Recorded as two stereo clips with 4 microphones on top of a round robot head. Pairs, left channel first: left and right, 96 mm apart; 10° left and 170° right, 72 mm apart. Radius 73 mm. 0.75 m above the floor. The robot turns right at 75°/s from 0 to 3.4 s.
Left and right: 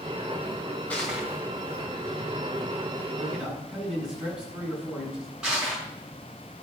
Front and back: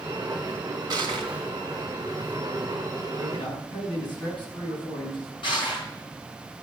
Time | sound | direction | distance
0.9 | crushing | 170° left | 1.8 m
3.2 | a man speaking | 25° right | 7 m
5.4 | crushing | 10° right | 6.5 m